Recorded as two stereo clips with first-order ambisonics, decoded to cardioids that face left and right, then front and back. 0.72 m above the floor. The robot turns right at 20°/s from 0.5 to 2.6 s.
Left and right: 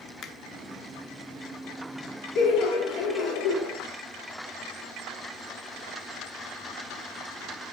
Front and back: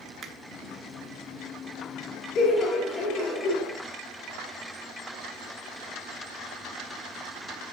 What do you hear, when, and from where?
0.2 s a finger snap: 120° left, 0.7 m
2.4 s laughter: 50° left, 1.2 m; by 3.7 s 55° left, 1.2 m